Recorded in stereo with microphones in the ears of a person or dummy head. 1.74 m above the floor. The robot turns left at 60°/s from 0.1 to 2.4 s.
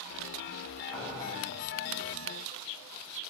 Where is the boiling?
10° left (ahead or behind), 2.5 m; by 1.3 s 40° left (ahead or behind), 2.5 m.